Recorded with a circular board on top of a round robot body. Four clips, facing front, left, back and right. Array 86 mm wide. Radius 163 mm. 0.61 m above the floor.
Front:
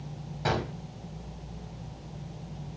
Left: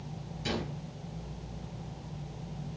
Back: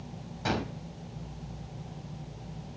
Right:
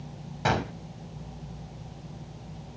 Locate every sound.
0.5 s a gunshot: 75° right, 1.5 m